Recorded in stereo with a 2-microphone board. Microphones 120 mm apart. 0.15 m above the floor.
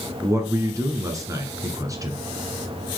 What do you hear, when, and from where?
0.2 s a man speaking: 30° right (ahead or behind), 1.8 m